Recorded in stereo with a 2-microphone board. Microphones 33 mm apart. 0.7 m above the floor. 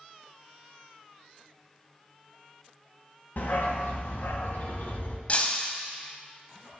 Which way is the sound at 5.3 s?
40° left (ahead or behind).